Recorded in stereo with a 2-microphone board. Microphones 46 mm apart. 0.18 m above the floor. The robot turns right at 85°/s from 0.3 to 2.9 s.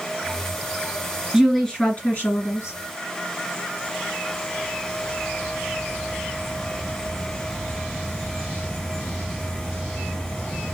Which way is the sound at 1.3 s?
10° right.